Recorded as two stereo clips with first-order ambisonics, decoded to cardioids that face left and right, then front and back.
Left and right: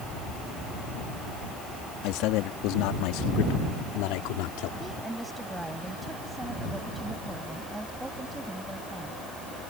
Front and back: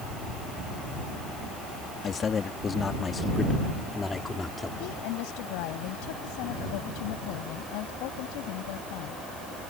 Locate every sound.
2.0 s a man speaking: 65° left; by 4.7 s 80° left
4.8 s a woman speaking: 5° right